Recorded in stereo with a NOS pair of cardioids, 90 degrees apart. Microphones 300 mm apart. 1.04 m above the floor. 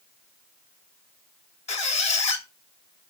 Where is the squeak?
20° left, 1.1 m.